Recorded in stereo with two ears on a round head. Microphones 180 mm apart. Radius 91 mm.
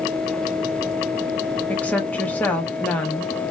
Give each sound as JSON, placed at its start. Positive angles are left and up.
{"t": 1.7, "sound": "a woman speaking", "side_deg": 5, "distance_m": 0.7}